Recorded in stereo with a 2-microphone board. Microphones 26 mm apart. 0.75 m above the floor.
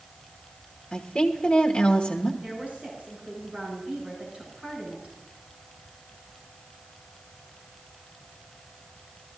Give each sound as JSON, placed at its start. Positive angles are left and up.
{"t": 0.9, "sound": "a woman speaking", "side_deg": 35, "distance_m": 1.2}
{"t": 2.4, "sound": "a woman speaking", "side_deg": -55, "distance_m": 6.5}